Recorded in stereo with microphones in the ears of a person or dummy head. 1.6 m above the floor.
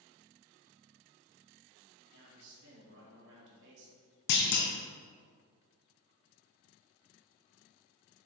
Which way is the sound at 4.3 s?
60° left (ahead or behind).